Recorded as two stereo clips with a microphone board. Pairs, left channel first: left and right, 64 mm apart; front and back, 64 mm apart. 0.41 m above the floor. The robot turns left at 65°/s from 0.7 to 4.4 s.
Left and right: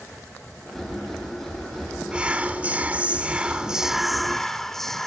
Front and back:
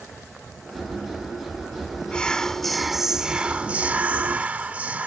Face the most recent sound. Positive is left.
turn(degrees=165)